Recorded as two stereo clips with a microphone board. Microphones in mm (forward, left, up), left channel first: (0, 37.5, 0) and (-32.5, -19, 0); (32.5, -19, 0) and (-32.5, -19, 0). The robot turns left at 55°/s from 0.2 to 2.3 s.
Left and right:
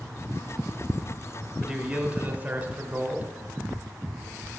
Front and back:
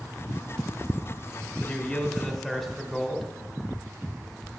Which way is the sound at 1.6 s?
45° right.